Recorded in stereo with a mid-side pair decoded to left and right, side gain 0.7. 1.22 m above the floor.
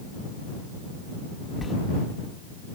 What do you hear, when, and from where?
1.6 s a sliding door: 20° left